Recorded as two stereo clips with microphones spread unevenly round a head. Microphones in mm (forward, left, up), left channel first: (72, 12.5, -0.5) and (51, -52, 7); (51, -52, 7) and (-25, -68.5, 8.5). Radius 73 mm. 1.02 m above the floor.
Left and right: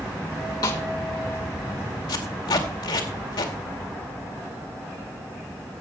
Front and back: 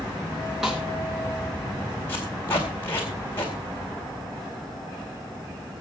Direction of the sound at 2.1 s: 90° left.